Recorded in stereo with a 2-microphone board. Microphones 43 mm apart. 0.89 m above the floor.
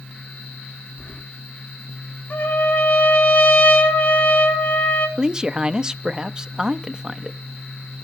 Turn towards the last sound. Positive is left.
turn(degrees=-20)  # may be behind; listen again after turning